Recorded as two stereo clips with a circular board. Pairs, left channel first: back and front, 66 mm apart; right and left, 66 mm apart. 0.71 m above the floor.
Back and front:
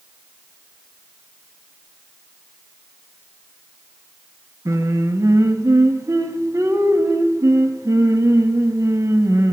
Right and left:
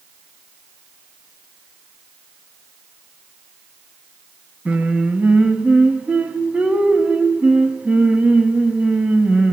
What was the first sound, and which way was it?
Singing, 20° left.